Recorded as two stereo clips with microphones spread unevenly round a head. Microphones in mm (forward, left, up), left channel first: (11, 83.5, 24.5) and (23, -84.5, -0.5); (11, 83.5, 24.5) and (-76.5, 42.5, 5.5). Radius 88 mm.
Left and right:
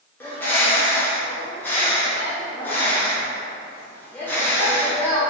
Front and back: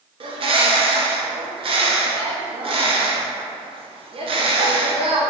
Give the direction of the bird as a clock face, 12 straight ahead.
6 o'clock.